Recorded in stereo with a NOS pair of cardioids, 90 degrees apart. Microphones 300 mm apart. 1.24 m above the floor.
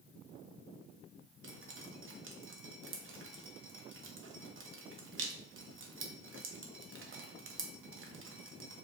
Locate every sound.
1.4 s dripping: 45° right, 1.0 m